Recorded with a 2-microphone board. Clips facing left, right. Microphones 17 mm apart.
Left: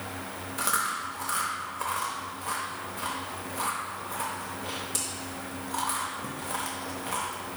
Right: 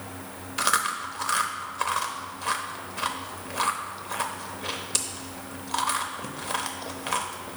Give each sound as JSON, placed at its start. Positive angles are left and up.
{"t": 0.6, "sound": "chewing", "side_deg": -55, "distance_m": 0.7}